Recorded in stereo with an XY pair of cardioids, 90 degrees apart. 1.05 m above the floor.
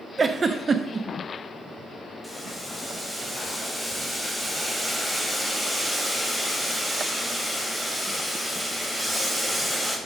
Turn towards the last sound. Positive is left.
turn(degrees=0)